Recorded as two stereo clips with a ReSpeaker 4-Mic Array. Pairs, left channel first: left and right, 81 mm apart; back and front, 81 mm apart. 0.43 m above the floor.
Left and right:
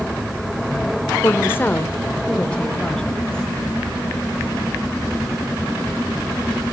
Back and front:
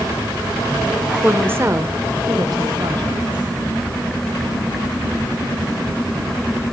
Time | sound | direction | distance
1.2 | a woman speaking | 60° left | 1.0 m